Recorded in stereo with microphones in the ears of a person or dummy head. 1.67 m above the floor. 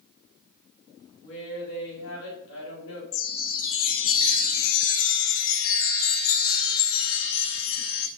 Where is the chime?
70° left (ahead or behind), 0.5 m.